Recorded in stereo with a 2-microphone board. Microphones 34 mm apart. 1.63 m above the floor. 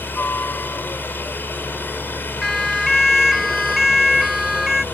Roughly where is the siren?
Centre.